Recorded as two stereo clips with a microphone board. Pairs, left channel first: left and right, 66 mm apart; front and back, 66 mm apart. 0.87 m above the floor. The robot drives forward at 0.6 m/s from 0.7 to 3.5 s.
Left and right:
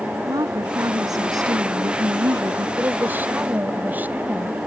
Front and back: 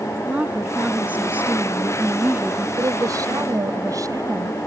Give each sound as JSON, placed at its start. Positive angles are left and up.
{"t": 0.2, "sound": "a woman speaking", "azimuth_deg": -110}
{"t": 2.8, "sound": "a woman speaking", "azimuth_deg": -150}